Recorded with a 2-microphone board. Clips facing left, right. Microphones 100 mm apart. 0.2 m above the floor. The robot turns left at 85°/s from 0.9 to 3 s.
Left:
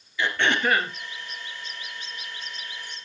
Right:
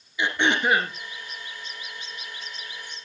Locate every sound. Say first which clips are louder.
0.2 s throat clearing: right 1 dB; 20° right (ahead or behind), 2.5 m